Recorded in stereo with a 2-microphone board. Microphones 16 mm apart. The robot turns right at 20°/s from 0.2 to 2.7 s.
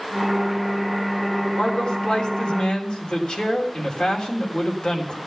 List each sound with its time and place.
1.6 s a man speaking: 45° left (ahead or behind), 3.5 m; by 5.2 s 70° left (ahead or behind), 3.5 m